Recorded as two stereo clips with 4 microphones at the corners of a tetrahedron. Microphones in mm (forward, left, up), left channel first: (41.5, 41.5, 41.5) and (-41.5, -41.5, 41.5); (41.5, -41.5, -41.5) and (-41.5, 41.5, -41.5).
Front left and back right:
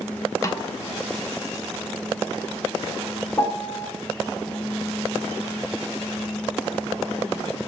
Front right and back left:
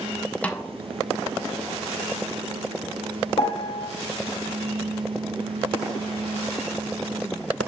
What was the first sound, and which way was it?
A snare drum, 20° left.